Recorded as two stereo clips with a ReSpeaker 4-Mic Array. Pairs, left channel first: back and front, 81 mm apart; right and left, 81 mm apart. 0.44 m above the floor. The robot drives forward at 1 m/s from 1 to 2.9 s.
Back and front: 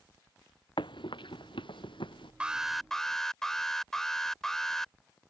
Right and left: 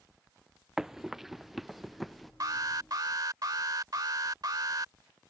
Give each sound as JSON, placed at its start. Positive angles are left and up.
{"t": 0.8, "sound": "running footsteps", "azimuth_deg": 175}
{"t": 2.4, "sound": "an alarm", "azimuth_deg": 75}